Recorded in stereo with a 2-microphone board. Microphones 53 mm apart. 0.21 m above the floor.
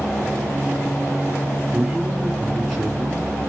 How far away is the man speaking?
About 2.5 m.